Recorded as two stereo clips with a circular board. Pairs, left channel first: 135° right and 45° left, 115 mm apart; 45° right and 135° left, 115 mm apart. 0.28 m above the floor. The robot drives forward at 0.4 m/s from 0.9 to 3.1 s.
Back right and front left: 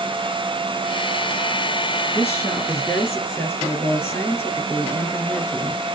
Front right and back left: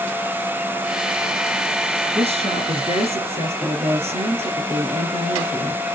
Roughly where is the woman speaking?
Behind left.